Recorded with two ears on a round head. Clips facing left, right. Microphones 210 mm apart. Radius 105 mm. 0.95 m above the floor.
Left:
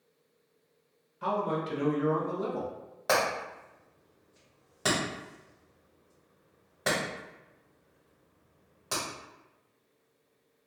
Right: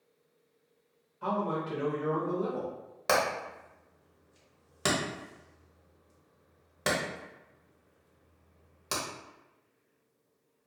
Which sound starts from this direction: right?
Hammering, at 3.1 s.